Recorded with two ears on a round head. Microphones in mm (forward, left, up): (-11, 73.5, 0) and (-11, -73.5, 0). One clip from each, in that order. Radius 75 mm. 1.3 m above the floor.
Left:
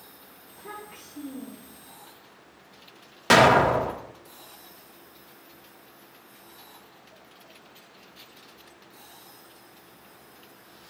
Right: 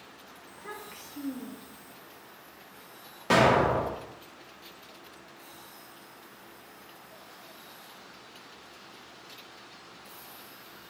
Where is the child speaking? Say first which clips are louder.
Left 2 dB; 75° right (ahead or behind), 1.5 m.